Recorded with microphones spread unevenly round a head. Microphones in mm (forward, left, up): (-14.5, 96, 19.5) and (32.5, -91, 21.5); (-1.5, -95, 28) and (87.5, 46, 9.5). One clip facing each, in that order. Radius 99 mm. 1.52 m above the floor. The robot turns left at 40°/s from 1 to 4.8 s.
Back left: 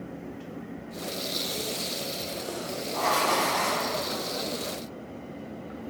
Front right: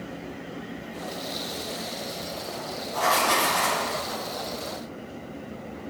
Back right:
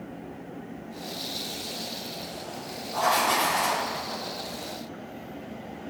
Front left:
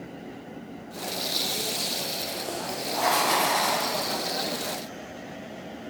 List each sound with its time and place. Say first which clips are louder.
2.9 s writing: front right 2 dB, even; 10° right, 1.1 m; by 3.9 s 45° right, 1.1 m